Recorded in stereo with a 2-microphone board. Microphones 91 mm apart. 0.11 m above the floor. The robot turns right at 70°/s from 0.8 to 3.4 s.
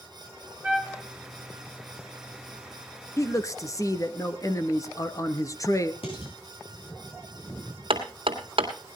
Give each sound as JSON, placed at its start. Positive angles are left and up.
{"t": 0.6, "sound": "a trumpet", "side_deg": -20, "distance_m": 1.4}
{"t": 3.2, "sound": "a man speaking", "side_deg": 30, "distance_m": 1.3}
{"t": 6.0, "sound": "dishes clattering", "side_deg": 80, "distance_m": 8.0}
{"t": 7.9, "sound": "hammering", "side_deg": -70, "distance_m": 2.0}